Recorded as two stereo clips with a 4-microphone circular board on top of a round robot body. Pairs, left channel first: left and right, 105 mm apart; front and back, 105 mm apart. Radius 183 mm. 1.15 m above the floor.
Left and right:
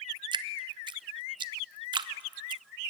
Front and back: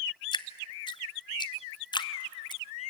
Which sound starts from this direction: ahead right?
Dripping, at 0.3 s.